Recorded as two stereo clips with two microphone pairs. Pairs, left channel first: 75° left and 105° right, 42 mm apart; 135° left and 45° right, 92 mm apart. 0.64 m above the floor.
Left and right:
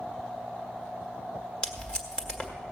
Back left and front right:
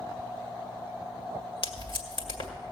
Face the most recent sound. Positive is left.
turn(degrees=135)